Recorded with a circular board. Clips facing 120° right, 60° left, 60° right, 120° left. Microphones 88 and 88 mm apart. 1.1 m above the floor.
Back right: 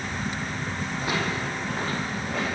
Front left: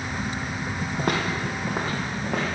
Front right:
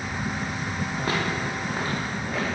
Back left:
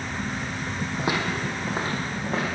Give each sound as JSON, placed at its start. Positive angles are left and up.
{"t": 1.0, "sound": "footsteps", "azimuth_deg": 45, "distance_m": 2.0}